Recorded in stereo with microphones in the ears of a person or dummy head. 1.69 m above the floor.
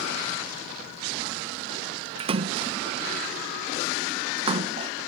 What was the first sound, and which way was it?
A splash, 20° right (ahead or behind).